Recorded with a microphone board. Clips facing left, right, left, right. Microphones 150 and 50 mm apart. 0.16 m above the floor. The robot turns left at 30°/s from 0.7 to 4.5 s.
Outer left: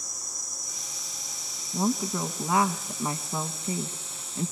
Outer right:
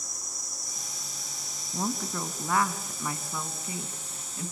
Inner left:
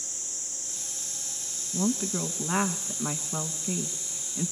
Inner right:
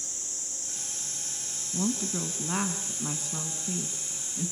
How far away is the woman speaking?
About 1.1 m.